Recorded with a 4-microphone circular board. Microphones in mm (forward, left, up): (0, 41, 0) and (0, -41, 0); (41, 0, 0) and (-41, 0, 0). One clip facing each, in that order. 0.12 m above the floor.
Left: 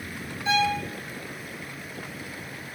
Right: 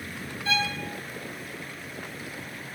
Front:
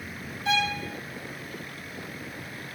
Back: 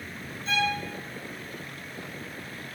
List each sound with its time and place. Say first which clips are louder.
0.5 s a violin: left 5 dB, front 1 dB; 20° left, 2 m